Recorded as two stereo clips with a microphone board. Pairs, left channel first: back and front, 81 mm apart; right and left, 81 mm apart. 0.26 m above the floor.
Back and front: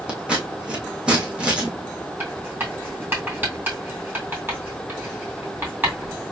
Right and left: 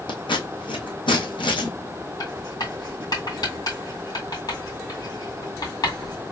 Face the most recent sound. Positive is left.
turn(degrees=-60)